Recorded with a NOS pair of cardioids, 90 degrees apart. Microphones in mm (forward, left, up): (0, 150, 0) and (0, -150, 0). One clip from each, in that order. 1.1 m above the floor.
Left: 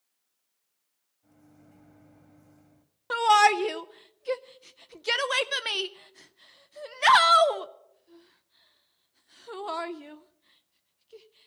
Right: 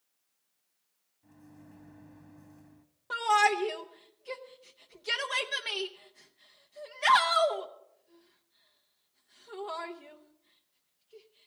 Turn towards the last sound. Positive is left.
turn(degrees=35)